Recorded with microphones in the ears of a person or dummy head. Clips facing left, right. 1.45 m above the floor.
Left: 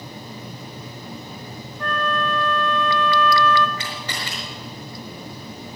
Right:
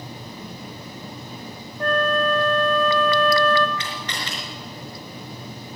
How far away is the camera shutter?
About 5.5 m.